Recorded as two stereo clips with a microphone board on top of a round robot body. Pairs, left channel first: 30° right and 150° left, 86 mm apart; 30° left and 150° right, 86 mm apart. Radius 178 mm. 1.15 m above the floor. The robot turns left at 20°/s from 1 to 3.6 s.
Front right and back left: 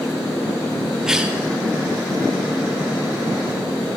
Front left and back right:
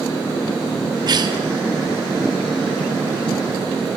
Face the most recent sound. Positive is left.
turn(degrees=180)